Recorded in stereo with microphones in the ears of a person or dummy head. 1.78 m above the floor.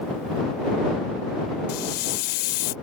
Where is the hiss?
55° left (ahead or behind).